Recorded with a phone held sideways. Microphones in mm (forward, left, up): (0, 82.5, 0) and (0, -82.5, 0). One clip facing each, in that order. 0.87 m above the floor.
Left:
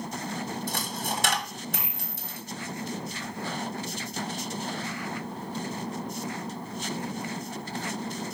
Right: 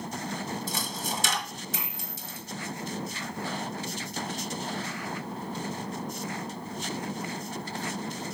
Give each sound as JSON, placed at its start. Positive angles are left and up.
{"t": 0.7, "sound": "a dropped coin", "side_deg": 60, "distance_m": 1.2}